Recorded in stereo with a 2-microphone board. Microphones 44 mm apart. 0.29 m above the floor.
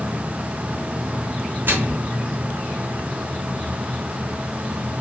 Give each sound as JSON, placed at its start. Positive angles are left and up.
{"t": 1.7, "sound": "a microwave", "side_deg": -55, "distance_m": 2.0}